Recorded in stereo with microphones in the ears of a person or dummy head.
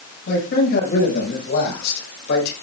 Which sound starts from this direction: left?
A man speaking, at 0.3 s.